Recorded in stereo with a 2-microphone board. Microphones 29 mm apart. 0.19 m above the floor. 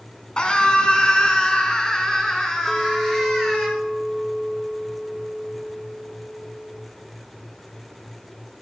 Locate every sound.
0.4 s a scream: 35° left (ahead or behind), 1.9 m; by 3.7 s 15° left (ahead or behind), 4 m
2.7 s a clink: 20° left (ahead or behind), 1.6 m